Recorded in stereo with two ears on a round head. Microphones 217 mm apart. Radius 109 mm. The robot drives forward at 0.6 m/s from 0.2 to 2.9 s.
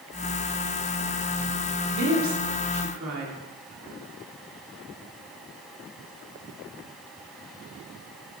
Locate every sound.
1.9 s a woman speaking: 55° right (ahead or behind), 2 m; by 3.4 s 60° right (ahead or behind), 2.0 m